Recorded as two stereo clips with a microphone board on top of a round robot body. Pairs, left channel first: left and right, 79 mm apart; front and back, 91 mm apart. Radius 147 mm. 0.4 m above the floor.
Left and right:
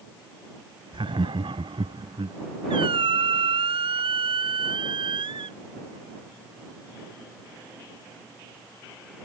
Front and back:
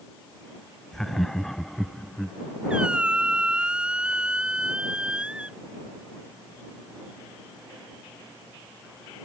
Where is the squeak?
100° right.